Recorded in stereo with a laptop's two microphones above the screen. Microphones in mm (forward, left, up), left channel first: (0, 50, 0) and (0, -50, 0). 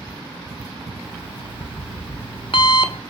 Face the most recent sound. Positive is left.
turn(degrees=55)  # may be behind; listen again after turning